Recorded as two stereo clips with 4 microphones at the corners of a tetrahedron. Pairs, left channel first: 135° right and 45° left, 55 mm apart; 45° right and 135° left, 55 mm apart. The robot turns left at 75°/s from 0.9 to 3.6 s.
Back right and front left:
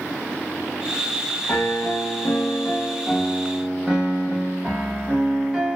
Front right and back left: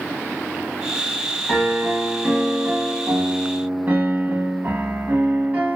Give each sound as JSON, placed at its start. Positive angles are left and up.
{"t": 1.5, "sound": "a piano", "azimuth_deg": -90, "distance_m": 0.7}